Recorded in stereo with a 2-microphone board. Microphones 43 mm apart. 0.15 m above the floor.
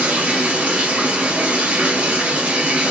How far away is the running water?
About 2.0 m.